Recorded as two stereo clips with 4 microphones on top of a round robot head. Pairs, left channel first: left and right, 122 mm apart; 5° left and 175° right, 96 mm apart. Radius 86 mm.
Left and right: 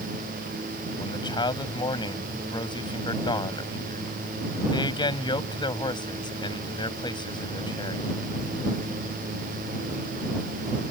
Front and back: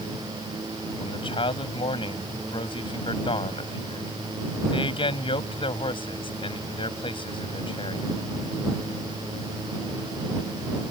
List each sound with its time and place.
1.0 s a man speaking: 35° left